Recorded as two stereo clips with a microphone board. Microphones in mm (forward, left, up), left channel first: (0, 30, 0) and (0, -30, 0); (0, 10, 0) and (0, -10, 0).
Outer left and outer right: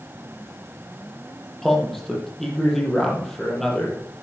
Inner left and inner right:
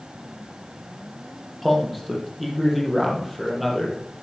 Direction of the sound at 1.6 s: 5° left (ahead or behind).